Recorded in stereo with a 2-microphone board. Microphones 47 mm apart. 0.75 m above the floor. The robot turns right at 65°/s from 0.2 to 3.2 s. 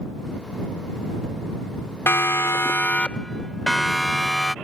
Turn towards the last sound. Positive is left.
turn(degrees=5)  # may be behind; listen again after turning